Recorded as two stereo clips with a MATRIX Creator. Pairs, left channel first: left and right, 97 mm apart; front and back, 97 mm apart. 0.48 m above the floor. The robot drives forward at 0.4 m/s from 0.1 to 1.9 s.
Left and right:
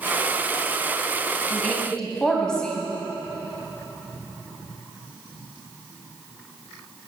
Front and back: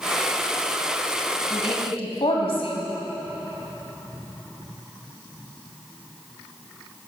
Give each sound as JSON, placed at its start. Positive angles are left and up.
{"t": 1.5, "sound": "a woman speaking", "azimuth_deg": 10, "distance_m": 3.5}